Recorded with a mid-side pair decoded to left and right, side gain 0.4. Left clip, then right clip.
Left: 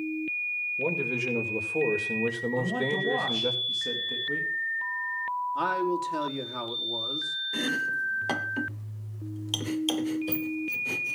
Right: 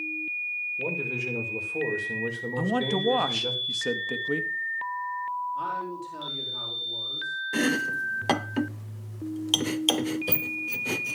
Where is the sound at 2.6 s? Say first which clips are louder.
Right 4 dB; 60° right, 3 m.